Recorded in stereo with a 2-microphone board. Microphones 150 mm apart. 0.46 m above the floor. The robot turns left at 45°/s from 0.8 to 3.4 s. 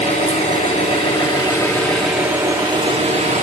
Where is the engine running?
55° left, 5 m; by 3.4 s 60° right, 5 m.